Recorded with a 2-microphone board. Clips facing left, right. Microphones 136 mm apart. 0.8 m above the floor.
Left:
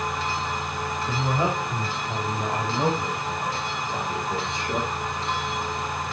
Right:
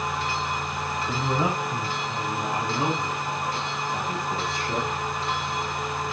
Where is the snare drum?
I don't hear a snare drum.